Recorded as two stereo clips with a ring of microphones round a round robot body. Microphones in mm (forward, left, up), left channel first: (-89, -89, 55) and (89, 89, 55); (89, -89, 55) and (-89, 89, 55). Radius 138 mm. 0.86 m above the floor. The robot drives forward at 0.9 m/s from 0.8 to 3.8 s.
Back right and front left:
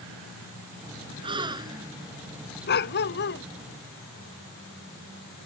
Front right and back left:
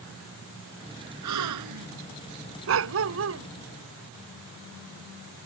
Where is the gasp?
115° left; by 1.9 s 120° left.